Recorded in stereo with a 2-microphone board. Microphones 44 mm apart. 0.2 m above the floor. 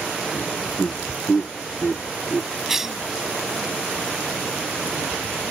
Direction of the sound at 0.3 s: 30° left (ahead or behind).